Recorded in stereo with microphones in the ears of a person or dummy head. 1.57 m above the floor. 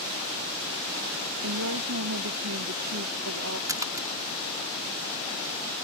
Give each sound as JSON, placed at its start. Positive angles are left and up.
{"t": 1.4, "sound": "a woman speaking", "side_deg": -75}
{"t": 3.7, "sound": "a splash", "side_deg": -20}